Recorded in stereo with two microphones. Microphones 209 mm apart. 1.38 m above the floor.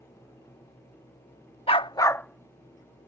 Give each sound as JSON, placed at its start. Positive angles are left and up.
{"t": 1.7, "sound": "a dog barking", "side_deg": 30}